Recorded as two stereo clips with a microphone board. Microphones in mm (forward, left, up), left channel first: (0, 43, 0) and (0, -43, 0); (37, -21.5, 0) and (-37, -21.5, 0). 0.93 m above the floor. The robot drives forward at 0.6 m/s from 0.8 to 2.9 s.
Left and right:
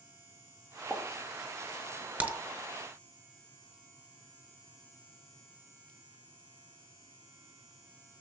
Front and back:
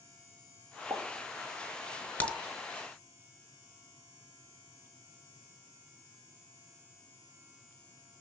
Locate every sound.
0.9 s a pop: 175° left, 1.9 m; by 2.3 s straight behind, 2.5 m
2.2 s a crack: 40° right, 0.7 m; by 2.4 s 55° right, 0.6 m